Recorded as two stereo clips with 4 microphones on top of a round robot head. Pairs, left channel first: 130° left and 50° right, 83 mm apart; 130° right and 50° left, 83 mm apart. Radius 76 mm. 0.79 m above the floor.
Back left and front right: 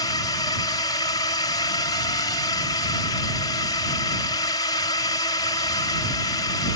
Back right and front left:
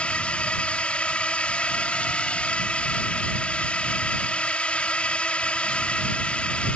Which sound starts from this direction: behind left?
A drone, at 0.0 s.